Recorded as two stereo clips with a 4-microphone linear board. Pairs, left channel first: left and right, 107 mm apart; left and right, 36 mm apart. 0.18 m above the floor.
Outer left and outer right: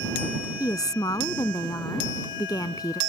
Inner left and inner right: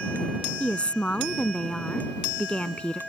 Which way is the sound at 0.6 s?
40° left (ahead or behind).